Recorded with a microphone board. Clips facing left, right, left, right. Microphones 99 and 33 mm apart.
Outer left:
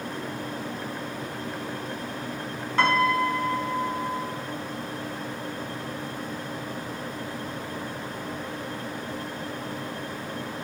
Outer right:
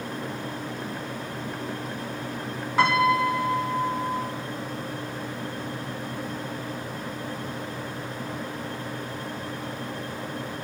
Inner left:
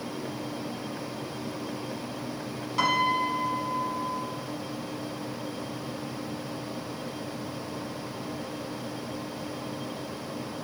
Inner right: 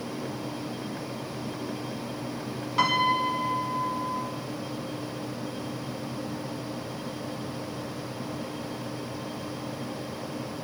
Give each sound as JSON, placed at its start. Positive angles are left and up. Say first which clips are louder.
{"t": 2.8, "sound": "a piano", "louder": "outer right 1 dB, inner right 1 dB", "side_deg": -10, "distance_m": 0.6}